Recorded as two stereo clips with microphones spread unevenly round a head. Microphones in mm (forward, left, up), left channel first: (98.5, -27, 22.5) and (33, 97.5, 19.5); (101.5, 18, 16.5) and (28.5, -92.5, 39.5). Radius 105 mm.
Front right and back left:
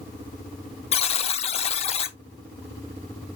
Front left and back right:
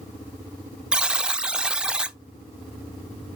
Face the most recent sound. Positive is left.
turn(degrees=-55)